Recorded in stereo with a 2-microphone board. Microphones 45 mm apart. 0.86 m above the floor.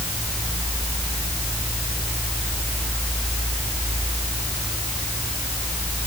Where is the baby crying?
No baby crying in this recording.